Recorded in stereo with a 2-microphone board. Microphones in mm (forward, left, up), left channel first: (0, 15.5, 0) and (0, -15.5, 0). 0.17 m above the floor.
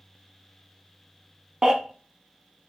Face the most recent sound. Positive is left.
turn(degrees=-25)  # may be behind; listen again after turning